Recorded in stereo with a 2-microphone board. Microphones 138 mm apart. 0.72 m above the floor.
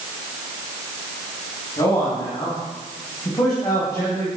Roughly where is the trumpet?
I don't hear a trumpet.